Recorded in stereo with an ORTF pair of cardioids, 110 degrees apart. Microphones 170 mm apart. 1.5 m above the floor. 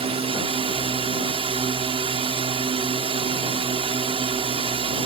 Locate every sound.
0.0 s a drone: 35° right